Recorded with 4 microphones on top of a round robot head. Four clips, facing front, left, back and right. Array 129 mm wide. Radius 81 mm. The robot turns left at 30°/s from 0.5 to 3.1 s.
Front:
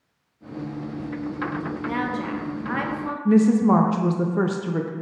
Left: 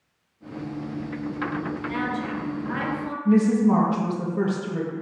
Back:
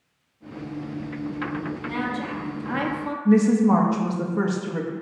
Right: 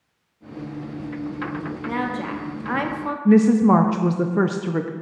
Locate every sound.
1.9 s a woman speaking: 65° right, 1.0 m; by 3.1 s 100° right, 1.0 m
3.2 s a woman speaking: 80° right, 0.6 m